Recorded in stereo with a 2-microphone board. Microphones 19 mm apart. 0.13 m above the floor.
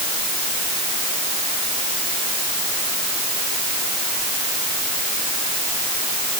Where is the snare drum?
No snare drum in this recording.